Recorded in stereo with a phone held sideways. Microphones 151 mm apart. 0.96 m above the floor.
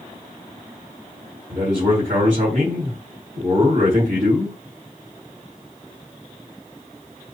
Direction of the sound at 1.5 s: 60° right (ahead or behind).